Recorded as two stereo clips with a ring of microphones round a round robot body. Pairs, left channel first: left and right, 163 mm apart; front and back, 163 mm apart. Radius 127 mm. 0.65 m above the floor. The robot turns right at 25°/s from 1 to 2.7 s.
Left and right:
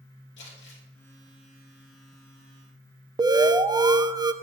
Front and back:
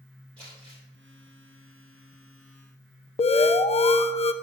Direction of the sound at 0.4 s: 110° left.